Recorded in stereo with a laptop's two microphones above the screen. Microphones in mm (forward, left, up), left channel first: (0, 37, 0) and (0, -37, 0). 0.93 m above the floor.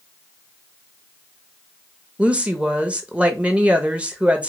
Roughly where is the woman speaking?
Centre.